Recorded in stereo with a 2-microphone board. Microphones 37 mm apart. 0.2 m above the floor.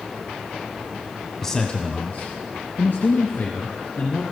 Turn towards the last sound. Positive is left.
turn(degrees=75)  # may be behind; listen again after turning